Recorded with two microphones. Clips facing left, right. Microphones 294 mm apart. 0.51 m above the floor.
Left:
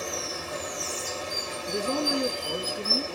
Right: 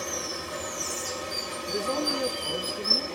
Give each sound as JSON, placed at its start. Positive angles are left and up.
{"t": 0.0, "sound": "running water", "side_deg": -20, "distance_m": 1.1}
{"t": 1.7, "sound": "a man speaking", "side_deg": 30, "distance_m": 1.2}